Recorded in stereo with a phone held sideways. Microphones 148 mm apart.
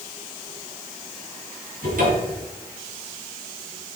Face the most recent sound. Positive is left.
turn(degrees=-65)  # may be behind; listen again after turning